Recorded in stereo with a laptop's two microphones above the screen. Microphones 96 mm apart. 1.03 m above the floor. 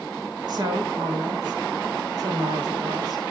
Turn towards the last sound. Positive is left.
turn(degrees=-45)  # may be behind; listen again after turning